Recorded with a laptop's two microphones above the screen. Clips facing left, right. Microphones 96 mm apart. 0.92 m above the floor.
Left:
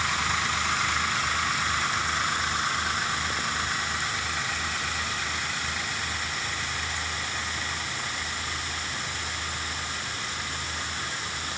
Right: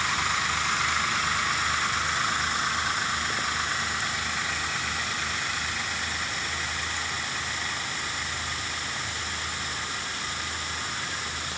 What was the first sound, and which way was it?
Only background noise.